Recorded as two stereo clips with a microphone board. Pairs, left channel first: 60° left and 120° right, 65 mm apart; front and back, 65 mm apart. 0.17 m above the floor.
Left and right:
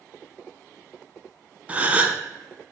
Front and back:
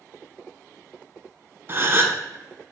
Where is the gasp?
170° right, 0.8 m.